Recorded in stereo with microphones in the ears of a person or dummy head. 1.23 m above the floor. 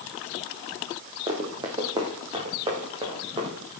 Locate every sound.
1.3 s running footsteps: 35° right (ahead or behind), 3.5 m